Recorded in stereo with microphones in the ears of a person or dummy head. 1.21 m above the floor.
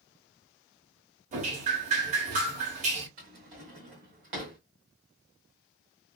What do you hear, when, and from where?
1.3 s dripping: 35° right (ahead or behind), 1.0 m
3.2 s a drawer: 30° right (ahead or behind), 1.0 m